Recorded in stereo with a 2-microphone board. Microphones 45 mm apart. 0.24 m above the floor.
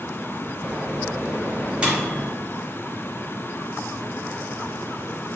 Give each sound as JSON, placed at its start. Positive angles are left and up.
{"t": 0.6, "sound": "a microwave", "side_deg": -20, "distance_m": 1.0}